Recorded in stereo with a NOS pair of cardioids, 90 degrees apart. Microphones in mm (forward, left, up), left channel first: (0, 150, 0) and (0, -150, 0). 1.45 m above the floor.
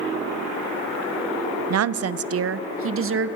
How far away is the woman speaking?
About 0.9 m.